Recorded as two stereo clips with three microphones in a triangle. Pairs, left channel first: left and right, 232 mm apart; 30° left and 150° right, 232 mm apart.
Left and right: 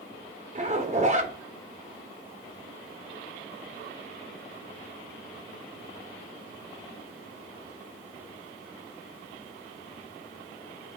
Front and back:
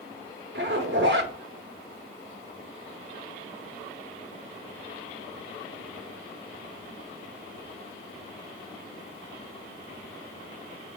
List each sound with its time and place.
0.6 s a zipper: 140° right, 0.6 m